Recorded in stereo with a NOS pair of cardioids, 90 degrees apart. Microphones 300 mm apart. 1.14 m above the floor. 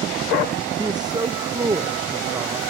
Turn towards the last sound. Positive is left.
turn(degrees=-15)